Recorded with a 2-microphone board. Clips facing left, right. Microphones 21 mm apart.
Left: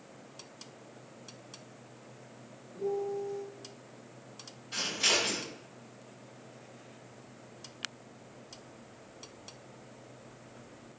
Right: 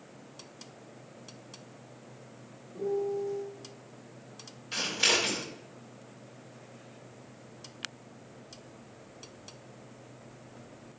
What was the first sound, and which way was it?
A piano, 50° right (ahead or behind).